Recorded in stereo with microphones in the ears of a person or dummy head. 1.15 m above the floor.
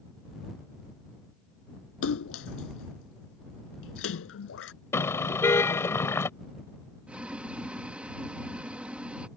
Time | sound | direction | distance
2.0 | a splash | 80° left | ?
4.9 | a car horn | 10° left (ahead or behind) | ?
7.1 | boiling | 10° right (ahead or behind) | ?